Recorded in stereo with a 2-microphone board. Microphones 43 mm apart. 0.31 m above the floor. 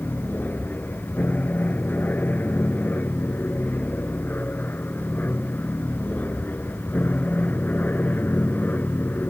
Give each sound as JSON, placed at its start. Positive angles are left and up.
{"t": 0.0, "sound": "an aircraft", "side_deg": 45}